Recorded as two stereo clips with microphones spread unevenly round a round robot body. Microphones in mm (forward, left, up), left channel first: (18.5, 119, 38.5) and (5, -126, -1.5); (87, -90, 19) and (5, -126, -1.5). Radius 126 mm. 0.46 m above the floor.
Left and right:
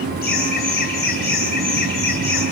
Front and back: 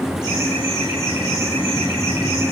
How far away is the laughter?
About 4.5 m.